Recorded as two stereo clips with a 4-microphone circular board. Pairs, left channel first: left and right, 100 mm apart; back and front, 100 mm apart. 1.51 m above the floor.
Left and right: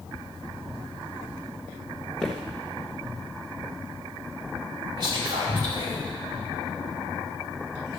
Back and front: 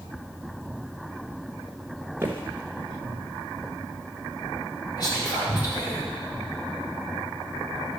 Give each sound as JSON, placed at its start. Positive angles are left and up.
{"t": 2.2, "sound": "footsteps", "azimuth_deg": 15, "distance_m": 1.6}
{"t": 5.0, "sound": "whispering", "azimuth_deg": -130, "distance_m": 5.5}